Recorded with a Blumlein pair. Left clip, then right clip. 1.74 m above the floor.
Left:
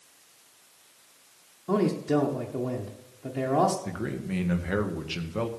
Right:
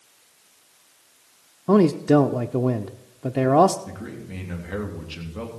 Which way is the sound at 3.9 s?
40° left.